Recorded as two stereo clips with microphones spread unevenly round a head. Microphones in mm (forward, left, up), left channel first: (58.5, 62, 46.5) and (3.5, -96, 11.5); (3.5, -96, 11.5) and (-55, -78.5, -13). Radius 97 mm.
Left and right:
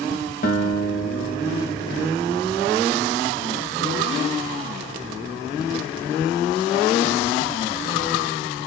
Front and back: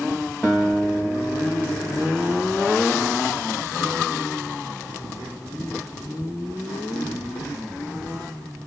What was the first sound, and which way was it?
A guitar, 60° left.